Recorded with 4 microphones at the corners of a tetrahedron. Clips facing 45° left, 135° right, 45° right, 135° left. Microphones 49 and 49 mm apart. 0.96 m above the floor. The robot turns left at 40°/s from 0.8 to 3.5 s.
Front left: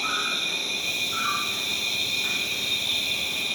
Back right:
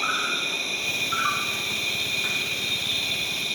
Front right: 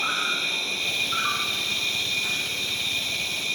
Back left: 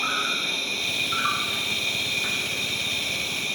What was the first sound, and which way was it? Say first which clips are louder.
An insect: back right 2 dB, even; 135° right.